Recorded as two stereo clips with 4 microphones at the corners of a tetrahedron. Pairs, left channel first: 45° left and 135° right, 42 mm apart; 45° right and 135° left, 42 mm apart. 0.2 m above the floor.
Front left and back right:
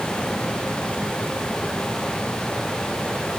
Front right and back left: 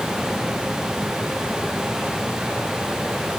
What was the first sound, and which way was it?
Only background noise.